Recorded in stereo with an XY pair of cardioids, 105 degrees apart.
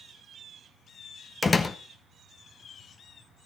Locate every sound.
1.4 s a door slam: 30° left, 1.1 m